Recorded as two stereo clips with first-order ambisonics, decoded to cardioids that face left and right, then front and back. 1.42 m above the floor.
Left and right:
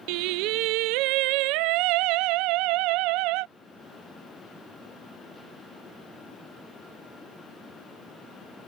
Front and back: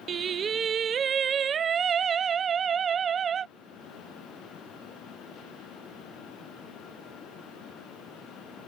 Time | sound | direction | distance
0.1 | singing | 115° right | ?